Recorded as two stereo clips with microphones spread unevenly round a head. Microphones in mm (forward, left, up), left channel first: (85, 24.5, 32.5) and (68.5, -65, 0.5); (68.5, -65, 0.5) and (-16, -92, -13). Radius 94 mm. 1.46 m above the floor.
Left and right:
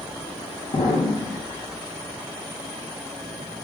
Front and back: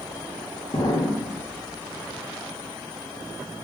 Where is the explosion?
80° left, 2 m.